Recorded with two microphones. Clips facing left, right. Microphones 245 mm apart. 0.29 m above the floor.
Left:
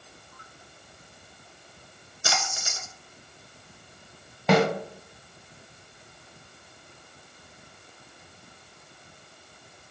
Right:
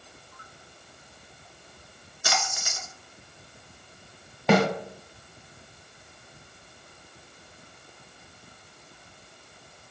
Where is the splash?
30° left (ahead or behind), 0.6 m.